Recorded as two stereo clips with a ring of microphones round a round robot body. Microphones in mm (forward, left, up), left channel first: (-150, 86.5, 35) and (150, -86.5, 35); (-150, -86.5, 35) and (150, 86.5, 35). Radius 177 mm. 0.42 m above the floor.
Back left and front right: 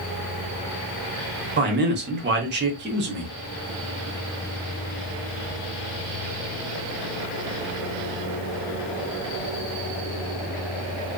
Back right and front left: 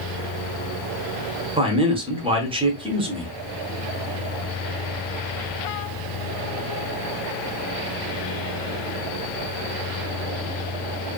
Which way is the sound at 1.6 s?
30° right.